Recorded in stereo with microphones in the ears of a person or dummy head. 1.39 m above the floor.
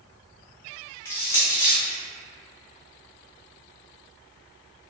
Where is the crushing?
15° left (ahead or behind), 0.8 m.